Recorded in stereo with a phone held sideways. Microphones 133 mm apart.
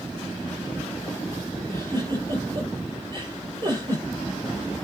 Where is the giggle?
35° right (ahead or behind), 6 m.